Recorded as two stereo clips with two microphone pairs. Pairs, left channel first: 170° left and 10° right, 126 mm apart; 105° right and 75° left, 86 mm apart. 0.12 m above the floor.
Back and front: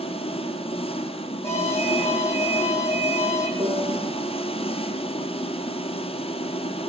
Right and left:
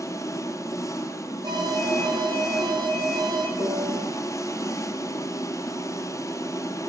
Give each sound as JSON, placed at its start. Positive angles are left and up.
{"t": 0.0, "sound": "an engine running", "azimuth_deg": -155, "distance_m": 2.5}
{"t": 1.4, "sound": "an alarm", "azimuth_deg": 100, "distance_m": 6.0}
{"t": 3.6, "sound": "a piano", "azimuth_deg": 35, "distance_m": 9.0}